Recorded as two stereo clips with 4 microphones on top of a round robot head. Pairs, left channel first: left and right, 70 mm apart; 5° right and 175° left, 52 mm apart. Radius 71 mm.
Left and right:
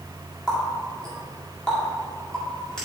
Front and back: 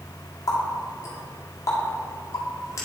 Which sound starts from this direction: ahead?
A running tap, at 0.5 s.